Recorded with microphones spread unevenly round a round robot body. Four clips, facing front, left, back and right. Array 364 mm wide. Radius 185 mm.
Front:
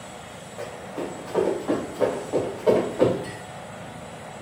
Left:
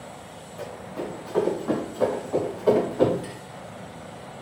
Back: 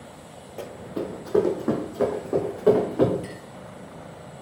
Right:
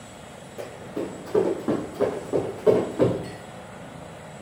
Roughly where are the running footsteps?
Behind right.